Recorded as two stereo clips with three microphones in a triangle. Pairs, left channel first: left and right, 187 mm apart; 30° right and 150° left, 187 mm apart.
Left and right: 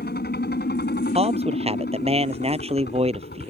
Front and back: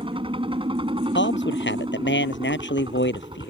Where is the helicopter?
95° left; by 3.5 s 90° left.